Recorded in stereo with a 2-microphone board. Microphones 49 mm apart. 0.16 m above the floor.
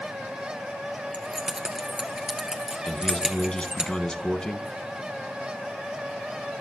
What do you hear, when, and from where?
1.1 s keys jangling: 15° right (ahead or behind), 1.8 m
2.8 s a man speaking: 20° left (ahead or behind), 1.3 m